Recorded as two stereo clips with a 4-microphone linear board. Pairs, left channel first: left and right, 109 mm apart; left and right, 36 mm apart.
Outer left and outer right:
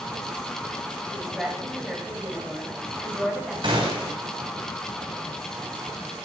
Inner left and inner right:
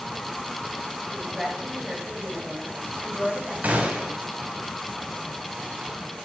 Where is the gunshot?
50° right (ahead or behind), 2.0 m.